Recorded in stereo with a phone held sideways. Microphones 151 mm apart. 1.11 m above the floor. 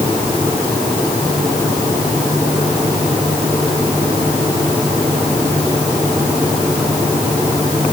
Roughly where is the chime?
I don't hear a chime.